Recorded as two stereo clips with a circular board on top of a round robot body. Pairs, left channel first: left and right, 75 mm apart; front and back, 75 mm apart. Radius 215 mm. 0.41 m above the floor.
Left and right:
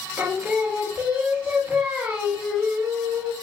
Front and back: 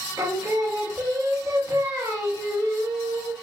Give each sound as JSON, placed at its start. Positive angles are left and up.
{"t": 0.2, "sound": "singing", "azimuth_deg": -150, "distance_m": 1.4}